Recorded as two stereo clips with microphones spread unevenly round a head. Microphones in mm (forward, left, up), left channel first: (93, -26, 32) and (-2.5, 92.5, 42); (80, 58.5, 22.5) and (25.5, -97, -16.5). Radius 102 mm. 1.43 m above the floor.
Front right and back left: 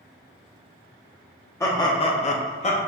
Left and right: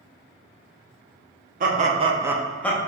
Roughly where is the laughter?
Behind right.